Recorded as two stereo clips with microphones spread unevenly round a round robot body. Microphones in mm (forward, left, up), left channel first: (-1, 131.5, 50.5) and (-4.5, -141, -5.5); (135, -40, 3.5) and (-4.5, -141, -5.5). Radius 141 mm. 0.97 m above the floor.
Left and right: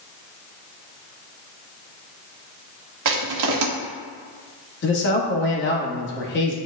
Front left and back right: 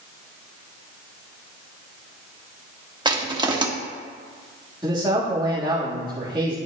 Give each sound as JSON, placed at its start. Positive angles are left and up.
{"t": 3.0, "sound": "crushing", "azimuth_deg": -80, "distance_m": 1.3}
{"t": 4.8, "sound": "a man speaking", "azimuth_deg": 140, "distance_m": 1.6}